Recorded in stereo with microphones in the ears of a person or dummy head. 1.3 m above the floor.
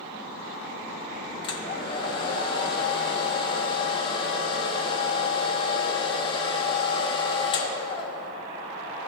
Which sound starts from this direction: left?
A hair dryer, at 1.4 s.